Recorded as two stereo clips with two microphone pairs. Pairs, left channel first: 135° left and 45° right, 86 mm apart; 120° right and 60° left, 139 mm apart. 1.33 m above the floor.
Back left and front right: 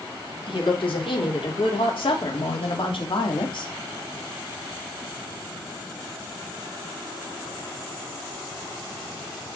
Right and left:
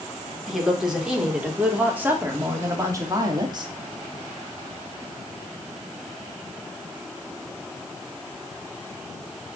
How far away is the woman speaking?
About 4 m.